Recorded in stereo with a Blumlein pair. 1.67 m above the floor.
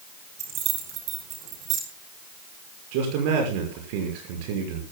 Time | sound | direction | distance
0.4 | keys jangling | 35° right | 4 m
2.9 | a man speaking | 50° right | 5.5 m